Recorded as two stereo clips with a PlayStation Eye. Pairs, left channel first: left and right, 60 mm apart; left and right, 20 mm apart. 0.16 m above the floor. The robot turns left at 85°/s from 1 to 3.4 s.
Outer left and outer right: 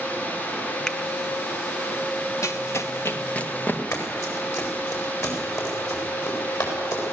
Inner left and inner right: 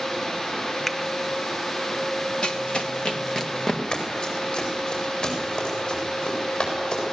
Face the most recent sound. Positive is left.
turn(degrees=65)  # may be behind; listen again after turning